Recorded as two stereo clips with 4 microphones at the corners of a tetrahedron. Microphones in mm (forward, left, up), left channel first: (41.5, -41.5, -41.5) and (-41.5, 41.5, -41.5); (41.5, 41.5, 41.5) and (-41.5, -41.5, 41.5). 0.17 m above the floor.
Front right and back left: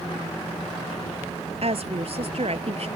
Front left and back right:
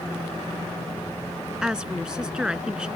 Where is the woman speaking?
145° left.